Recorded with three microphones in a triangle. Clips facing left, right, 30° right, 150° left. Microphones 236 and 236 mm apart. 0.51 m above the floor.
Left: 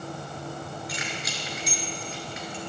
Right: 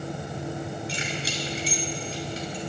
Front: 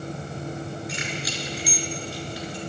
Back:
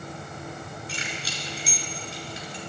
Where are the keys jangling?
150° right, 5 m; by 2.6 s 140° right, 5 m.